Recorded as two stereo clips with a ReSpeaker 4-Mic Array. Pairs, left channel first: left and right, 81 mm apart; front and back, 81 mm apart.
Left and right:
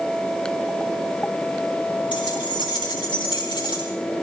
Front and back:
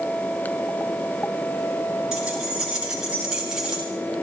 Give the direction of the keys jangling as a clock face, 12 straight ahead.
9 o'clock.